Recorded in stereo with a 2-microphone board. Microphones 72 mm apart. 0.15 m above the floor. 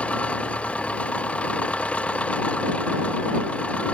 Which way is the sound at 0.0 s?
20° left (ahead or behind).